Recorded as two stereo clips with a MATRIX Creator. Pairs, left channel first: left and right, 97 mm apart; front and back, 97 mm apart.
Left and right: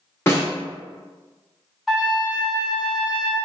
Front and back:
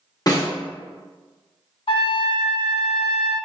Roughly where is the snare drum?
Ahead left.